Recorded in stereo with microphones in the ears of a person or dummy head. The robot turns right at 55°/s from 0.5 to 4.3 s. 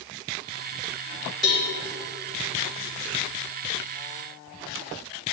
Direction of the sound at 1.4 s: 50° right (ahead or behind).